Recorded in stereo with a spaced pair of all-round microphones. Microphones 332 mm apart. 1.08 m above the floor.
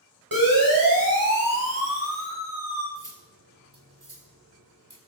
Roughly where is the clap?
No clap in this recording.